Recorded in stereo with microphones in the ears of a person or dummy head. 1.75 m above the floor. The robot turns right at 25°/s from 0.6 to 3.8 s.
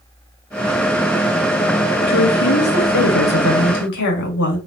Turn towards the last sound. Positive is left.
turn(degrees=110)